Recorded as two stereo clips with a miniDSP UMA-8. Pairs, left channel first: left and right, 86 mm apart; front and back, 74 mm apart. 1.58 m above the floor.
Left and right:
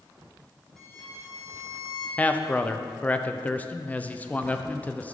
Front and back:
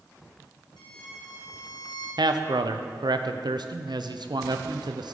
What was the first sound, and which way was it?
A violin, 10° left.